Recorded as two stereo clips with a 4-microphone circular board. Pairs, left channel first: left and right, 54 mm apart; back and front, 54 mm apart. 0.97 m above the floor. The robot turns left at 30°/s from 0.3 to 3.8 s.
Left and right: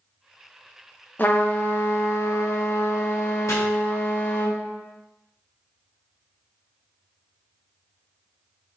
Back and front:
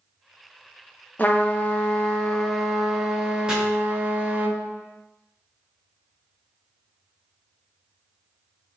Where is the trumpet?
130° left, 0.5 m; by 4.5 s 55° left, 0.5 m.